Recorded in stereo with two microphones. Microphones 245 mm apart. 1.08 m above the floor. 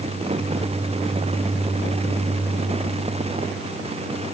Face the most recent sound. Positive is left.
No sound to turn to.